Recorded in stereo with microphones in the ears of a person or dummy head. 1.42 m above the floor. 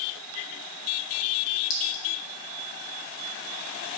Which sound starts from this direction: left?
A clink, at 1.7 s.